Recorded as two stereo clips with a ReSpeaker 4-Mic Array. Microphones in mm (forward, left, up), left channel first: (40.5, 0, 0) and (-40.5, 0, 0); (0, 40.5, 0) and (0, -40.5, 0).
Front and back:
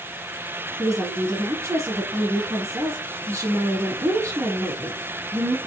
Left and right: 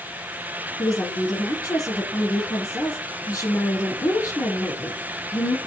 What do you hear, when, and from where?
0.8 s a woman speaking: 130° left, 4.5 m